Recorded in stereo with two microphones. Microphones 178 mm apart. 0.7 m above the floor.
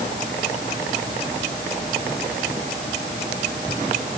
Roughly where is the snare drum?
I don't hear a snare drum.